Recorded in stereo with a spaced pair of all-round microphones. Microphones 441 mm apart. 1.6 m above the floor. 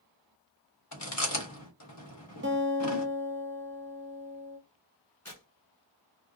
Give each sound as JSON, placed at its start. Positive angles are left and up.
{"t": 0.9, "sound": "chewing", "side_deg": 35, "distance_m": 1.0}
{"t": 2.4, "sound": "a guitar", "side_deg": -25, "distance_m": 0.7}
{"t": 5.2, "sound": "tearing paper", "side_deg": 35, "distance_m": 1.7}